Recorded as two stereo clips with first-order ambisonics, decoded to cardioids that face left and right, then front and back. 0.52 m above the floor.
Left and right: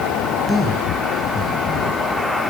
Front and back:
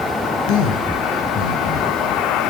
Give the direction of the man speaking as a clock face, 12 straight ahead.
12 o'clock.